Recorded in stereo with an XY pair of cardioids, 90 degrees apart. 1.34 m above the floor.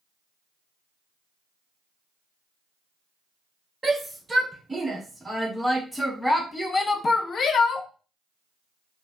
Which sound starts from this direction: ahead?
A shout, at 3.8 s.